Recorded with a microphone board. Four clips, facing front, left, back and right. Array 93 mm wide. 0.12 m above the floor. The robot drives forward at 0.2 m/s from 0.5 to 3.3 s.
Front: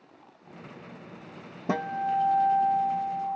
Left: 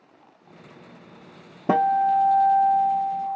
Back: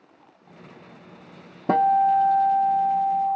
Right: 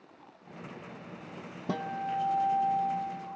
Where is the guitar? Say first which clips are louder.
Left 14 dB, back 10 dB; 125° left, 0.7 m; by 3.4 s 140° left, 0.9 m.